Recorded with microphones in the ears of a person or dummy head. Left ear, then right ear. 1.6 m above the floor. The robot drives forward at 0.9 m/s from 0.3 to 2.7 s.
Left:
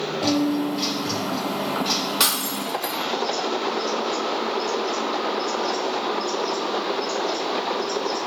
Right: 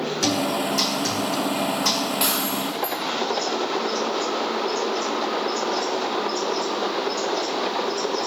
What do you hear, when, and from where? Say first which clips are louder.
0.2 s a guitar: even; 45° right (ahead or behind), 5.5 m; by 2.1 s 35° right (ahead or behind), 7 m
2.2 s breaking glass: left 1 dB; 65° left (ahead or behind), 1.8 m